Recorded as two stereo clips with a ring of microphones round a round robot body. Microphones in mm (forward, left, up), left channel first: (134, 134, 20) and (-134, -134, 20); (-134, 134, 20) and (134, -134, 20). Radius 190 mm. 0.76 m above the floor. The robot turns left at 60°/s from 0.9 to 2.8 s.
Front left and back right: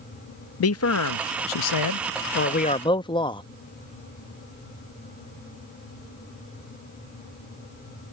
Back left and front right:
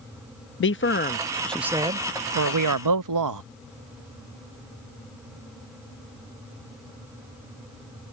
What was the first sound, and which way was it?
A man speaking, 85° left.